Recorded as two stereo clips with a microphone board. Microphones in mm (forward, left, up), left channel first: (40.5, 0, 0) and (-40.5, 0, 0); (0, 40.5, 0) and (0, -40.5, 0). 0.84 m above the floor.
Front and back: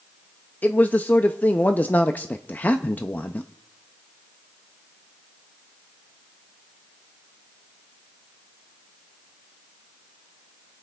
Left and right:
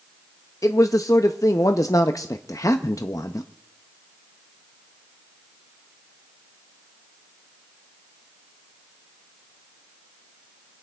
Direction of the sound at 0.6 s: 60° left.